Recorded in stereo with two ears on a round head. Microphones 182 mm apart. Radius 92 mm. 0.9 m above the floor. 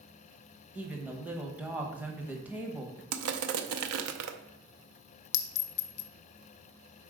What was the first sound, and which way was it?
A woman speaking, 10° right (ahead or behind).